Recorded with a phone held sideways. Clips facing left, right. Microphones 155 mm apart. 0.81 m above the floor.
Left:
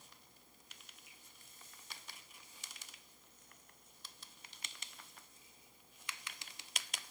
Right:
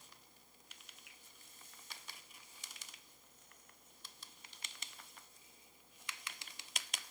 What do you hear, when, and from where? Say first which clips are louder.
1.1 s a finger snap: even; 65° right (ahead or behind), 4 m